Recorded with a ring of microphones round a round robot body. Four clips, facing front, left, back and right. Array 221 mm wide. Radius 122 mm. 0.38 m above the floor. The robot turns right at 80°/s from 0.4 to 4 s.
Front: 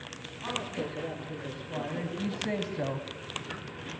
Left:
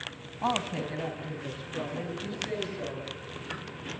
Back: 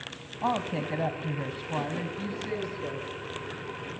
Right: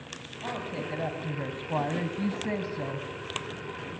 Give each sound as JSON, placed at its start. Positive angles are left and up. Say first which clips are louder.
{"t": 0.4, "sound": "a woman speaking", "louder": "left 5 dB, back 6 dB", "azimuth_deg": 145, "distance_m": 3.5}